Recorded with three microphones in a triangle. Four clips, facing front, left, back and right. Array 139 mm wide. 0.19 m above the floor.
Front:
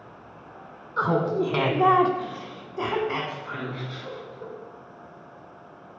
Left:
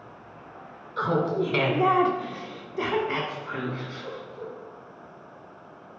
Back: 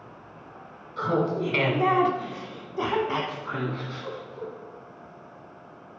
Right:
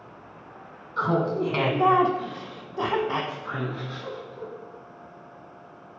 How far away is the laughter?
About 1.4 m.